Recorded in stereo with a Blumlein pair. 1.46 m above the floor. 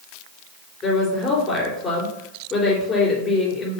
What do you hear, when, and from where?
0.8 s a woman speaking: 20° left, 3 m